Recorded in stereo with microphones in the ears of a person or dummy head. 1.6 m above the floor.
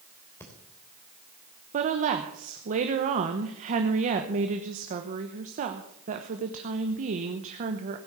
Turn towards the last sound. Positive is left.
turn(degrees=-40)  # may be behind; listen again after turning